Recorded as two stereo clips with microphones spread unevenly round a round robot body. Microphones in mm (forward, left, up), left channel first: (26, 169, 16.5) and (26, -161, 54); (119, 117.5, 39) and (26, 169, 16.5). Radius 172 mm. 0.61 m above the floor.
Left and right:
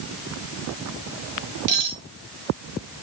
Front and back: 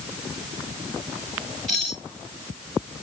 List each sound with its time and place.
1.7 s cutlery clinking: 115° right, 3.5 m